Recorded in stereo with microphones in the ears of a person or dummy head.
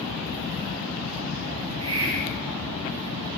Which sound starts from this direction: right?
A hiss, at 1.6 s.